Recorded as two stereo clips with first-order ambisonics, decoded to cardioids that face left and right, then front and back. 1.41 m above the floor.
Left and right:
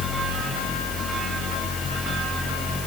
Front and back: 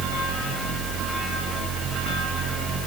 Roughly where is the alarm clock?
I don't hear an alarm clock.